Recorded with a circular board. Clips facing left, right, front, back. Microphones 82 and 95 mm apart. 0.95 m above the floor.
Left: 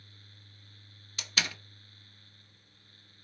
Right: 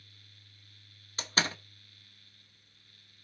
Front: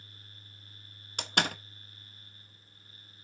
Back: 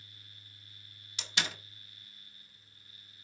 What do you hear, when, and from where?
1.2 s a door slam: 35° right, 0.8 m